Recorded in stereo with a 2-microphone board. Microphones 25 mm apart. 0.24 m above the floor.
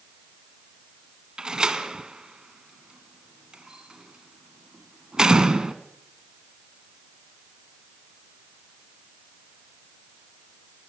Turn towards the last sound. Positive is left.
turn(degrees=-30)  # may be behind; listen again after turning